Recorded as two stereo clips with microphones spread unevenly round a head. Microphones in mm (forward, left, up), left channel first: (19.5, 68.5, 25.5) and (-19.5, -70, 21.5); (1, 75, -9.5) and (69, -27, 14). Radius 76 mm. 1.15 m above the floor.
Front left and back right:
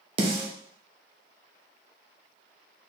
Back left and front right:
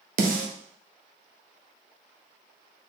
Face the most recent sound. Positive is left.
turn(degrees=-50)